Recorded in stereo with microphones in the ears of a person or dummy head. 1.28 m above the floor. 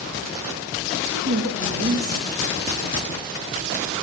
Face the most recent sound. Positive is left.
turn(degrees=-70)  # may be behind; listen again after turning